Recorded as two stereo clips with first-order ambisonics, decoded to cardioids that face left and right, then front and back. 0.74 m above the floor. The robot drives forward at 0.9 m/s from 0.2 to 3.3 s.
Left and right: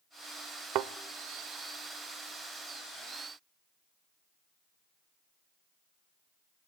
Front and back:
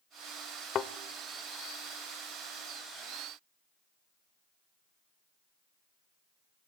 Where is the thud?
55° right, 0.7 m; by 0.9 s 65° right, 0.6 m.